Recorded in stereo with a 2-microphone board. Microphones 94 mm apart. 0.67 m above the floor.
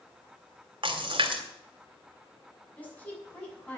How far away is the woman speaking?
About 7 m.